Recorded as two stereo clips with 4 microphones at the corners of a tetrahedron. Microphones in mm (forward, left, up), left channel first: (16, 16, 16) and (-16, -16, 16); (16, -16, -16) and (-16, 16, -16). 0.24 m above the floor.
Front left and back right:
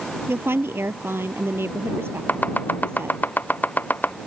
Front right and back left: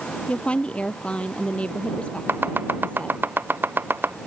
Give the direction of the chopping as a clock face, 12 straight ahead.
9 o'clock.